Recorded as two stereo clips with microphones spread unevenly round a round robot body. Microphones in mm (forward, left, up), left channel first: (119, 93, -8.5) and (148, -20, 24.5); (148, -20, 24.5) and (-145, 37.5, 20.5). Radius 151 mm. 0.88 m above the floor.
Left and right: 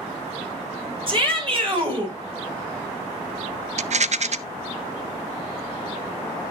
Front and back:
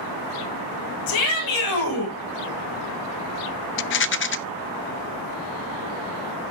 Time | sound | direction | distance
1.1 | a shout | 30° right | 6.5 m
3.8 | a rattle | 55° right | 0.7 m